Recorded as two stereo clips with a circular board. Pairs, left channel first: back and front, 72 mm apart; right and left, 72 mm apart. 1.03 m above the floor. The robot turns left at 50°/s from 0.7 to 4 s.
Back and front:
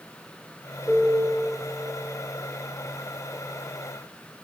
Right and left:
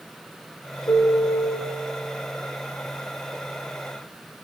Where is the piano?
85° right, 3.5 m; by 1.6 s 120° right, 3.5 m.